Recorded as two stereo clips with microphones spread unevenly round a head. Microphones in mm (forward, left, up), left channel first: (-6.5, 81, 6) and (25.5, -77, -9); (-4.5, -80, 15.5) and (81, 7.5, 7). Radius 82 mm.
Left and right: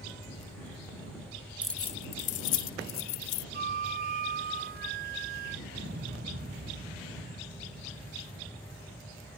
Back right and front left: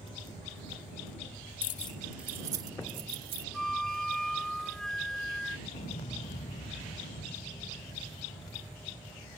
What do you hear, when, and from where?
1.6 s keys jangling: 160° right; by 3.4 s 105° left
3.5 s a flute: 50° right
5.7 s an explosion: 110° right